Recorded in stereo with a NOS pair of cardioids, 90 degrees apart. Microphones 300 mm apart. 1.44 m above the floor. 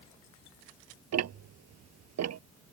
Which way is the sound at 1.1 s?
60° right.